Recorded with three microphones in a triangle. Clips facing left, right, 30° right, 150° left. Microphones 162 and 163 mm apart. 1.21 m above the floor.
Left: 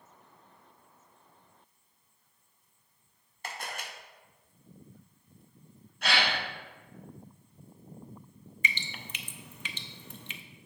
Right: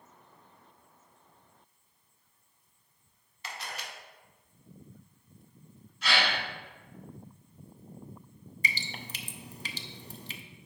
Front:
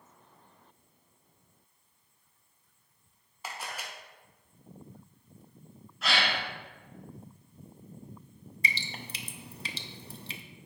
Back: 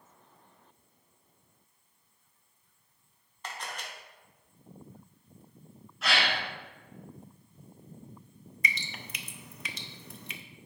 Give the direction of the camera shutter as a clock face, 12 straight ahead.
10 o'clock.